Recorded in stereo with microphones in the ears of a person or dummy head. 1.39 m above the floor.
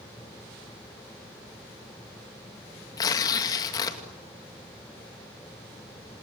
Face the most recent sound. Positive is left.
turn(degrees=20)  # may be behind; listen again after turning